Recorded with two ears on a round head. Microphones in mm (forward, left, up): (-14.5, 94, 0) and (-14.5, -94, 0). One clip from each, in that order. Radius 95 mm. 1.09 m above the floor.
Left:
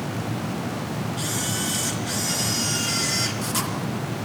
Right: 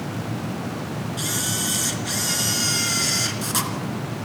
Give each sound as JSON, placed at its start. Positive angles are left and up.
{"t": 1.2, "sound": "a camera shutter", "side_deg": -15, "distance_m": 3.0}